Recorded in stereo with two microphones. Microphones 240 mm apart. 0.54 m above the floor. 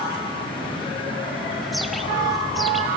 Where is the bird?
Centre (ahead or behind), 1.1 m.